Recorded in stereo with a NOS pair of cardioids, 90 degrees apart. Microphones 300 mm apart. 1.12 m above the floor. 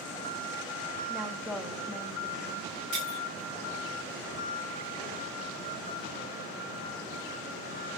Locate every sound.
1.1 s a woman speaking: 5° right, 2.5 m
2.9 s breaking glass: 70° right, 5.5 m